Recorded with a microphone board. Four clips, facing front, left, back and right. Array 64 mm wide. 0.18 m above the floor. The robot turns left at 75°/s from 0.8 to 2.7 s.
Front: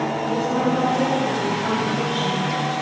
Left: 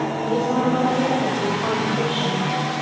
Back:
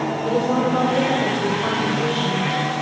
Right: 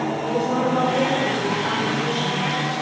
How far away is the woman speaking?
About 6.5 m.